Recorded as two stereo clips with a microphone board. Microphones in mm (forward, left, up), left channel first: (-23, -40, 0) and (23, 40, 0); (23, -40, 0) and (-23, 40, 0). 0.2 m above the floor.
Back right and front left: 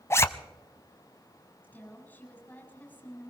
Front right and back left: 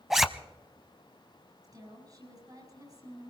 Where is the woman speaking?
165° left, 7.5 m.